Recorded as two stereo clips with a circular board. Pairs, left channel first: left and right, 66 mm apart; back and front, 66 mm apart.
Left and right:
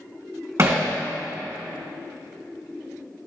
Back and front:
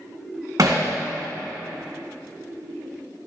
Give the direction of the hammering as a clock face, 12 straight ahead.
1 o'clock.